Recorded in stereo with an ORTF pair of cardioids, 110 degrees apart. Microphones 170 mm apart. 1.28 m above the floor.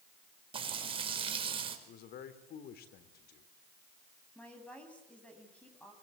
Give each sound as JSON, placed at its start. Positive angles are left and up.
{"t": 0.5, "sound": "frying", "azimuth_deg": -30, "distance_m": 4.5}
{"t": 1.9, "sound": "a man speaking", "azimuth_deg": 65, "distance_m": 3.5}
{"t": 4.3, "sound": "a woman speaking", "azimuth_deg": 5, "distance_m": 10.0}